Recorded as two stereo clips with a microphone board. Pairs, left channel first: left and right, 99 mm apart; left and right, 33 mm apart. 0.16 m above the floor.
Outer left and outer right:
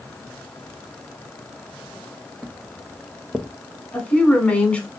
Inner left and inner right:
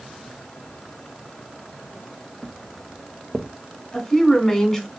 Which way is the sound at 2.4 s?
Centre (ahead or behind).